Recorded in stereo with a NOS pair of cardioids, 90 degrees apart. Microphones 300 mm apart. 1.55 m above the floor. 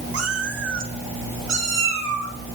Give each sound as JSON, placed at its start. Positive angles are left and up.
{"t": 0.1, "sound": "a cat meowing", "azimuth_deg": -50, "distance_m": 5.5}